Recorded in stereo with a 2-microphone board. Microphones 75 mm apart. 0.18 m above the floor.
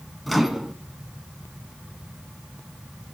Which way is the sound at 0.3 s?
Centre (ahead or behind).